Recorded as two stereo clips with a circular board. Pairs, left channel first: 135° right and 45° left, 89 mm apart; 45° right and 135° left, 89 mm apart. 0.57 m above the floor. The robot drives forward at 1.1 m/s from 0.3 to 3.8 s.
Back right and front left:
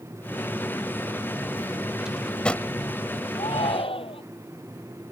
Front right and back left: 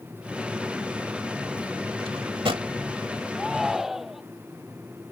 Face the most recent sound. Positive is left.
turn(degrees=-140)